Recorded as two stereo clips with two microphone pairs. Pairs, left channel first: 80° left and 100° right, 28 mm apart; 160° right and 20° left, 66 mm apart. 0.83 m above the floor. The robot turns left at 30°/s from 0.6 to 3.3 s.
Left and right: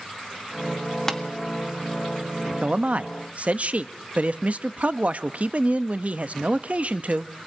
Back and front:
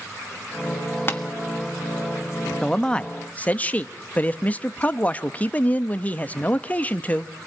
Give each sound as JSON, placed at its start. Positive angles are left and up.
{"t": 1.1, "sound": "tapping", "azimuth_deg": 150, "distance_m": 1.4}
{"t": 2.6, "sound": "a man speaking", "azimuth_deg": -80, "distance_m": 0.7}